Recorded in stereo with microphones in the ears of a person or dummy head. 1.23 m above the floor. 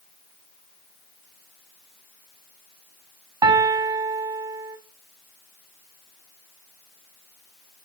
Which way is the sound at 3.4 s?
25° right (ahead or behind).